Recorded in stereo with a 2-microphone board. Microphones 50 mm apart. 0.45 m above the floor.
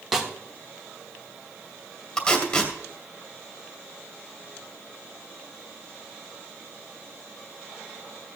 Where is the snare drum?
5° right (ahead or behind), 1.3 m.